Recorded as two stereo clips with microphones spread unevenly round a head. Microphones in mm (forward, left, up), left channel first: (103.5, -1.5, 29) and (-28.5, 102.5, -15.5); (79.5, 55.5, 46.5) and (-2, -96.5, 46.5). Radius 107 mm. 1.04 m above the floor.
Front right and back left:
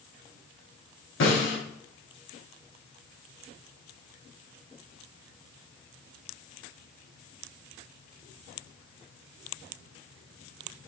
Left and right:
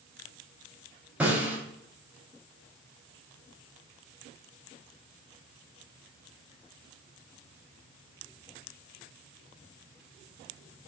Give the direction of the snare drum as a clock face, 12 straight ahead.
1 o'clock.